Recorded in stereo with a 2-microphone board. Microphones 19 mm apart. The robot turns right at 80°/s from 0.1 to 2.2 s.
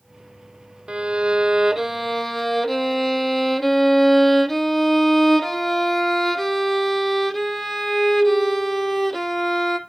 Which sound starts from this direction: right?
A violin, at 0.9 s.